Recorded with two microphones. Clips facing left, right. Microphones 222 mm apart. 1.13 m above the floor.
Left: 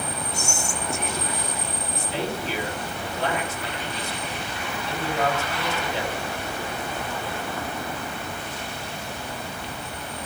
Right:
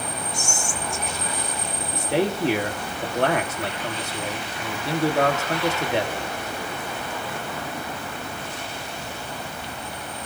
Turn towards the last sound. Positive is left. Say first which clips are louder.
# right 8 dB
turn(degrees=-60)  # may be behind; listen again after turning